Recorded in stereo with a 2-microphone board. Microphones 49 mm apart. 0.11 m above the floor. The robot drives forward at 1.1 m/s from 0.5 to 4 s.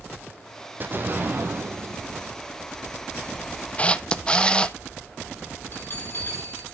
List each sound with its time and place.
0.8 s an explosion: 40° right (ahead or behind), 3.5 m; by 2.3 s 60° right (ahead or behind), 2.5 m
3.8 s a camera shutter: 25° left (ahead or behind), 0.6 m; by 4.8 s 20° left (ahead or behind), 0.8 m
5.7 s a bell: 40° left (ahead or behind), 9.5 m